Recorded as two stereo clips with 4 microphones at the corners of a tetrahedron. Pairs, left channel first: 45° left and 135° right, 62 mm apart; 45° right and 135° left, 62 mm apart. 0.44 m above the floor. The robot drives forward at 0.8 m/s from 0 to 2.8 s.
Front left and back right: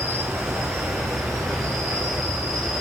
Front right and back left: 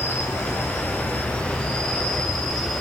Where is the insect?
80° right, 2 m; by 2.8 s 135° right, 3 m.